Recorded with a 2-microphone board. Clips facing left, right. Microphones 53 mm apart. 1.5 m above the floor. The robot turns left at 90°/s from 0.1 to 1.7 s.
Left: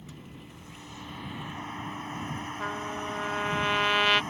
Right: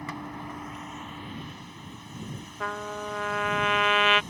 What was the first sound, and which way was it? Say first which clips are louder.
A vehicle: right 11 dB; 75° right.